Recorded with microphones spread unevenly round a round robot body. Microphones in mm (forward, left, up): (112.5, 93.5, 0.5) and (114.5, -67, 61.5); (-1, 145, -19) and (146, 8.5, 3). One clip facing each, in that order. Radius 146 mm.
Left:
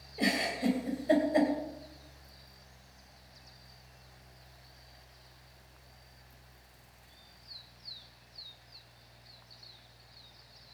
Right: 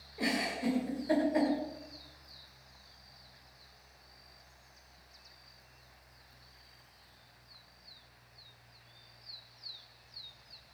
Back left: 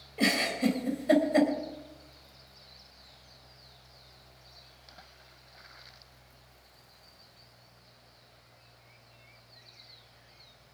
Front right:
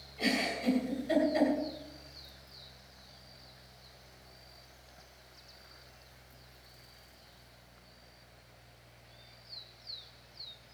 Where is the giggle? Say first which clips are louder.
Left 2 dB, back left 5 dB; 145° left, 2.5 m.